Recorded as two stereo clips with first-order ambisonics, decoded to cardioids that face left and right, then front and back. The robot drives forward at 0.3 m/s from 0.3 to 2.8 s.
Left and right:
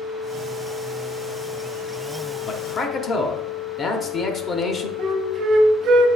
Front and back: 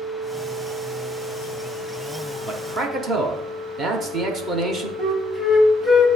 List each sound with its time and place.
2.5 s a man speaking: 120° left, 0.7 m; by 4.9 s 135° left, 0.7 m
5.0 s a flute: 90° right, 0.8 m